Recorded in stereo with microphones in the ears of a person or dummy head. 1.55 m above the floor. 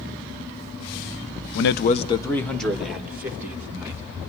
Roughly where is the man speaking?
Left.